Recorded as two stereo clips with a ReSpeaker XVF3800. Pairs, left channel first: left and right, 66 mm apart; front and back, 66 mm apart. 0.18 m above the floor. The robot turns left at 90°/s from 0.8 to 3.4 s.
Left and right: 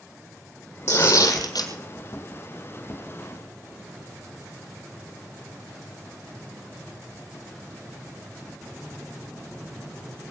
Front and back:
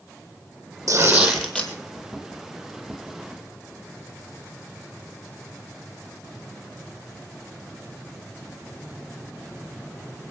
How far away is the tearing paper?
About 3 m.